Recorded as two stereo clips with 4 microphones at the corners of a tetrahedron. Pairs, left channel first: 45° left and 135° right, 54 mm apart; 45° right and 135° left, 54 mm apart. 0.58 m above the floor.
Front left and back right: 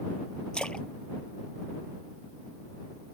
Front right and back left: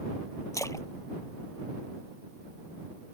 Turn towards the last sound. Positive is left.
turn(degrees=-25)